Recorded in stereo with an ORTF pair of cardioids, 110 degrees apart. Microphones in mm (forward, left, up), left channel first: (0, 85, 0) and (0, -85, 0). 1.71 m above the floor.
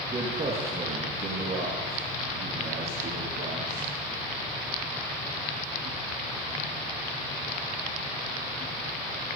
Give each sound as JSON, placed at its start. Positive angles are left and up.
{"t": 0.1, "sound": "a man speaking", "azimuth_deg": -30, "distance_m": 2.5}